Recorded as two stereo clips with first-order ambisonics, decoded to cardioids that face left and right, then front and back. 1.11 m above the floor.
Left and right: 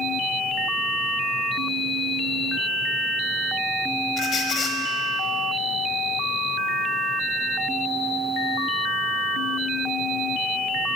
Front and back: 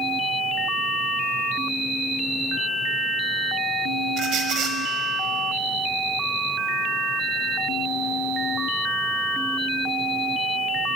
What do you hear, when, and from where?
4.2 s a squeak: 145° left, 1.2 m